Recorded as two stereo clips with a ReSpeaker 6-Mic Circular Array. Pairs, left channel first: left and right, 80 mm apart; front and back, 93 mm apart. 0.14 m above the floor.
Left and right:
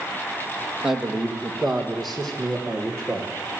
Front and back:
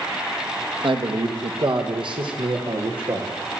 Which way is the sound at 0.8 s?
170° right.